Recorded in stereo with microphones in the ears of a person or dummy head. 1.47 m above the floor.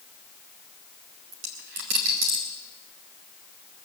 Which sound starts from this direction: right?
A dropped coin, at 1.3 s.